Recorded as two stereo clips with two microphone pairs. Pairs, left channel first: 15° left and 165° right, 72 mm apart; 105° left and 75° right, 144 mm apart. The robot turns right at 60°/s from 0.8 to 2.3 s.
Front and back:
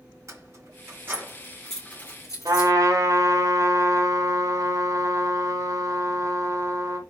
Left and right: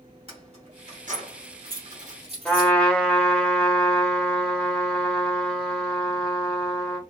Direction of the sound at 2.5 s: 175° right.